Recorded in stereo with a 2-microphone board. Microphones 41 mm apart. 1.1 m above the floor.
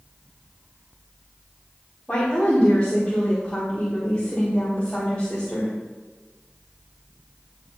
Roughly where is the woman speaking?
Centre.